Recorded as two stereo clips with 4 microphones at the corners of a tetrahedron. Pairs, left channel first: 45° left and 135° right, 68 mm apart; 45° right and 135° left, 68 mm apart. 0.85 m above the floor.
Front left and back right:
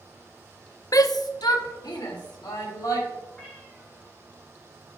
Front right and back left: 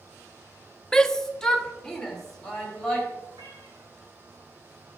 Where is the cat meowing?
125° left, 3 m.